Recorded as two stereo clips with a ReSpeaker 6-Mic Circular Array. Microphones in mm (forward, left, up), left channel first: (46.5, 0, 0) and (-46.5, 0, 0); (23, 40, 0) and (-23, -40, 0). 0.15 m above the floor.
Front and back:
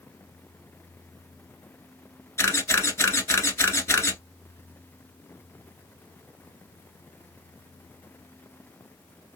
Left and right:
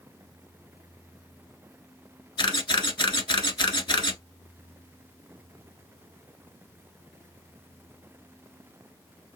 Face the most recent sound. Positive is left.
turn(degrees=55)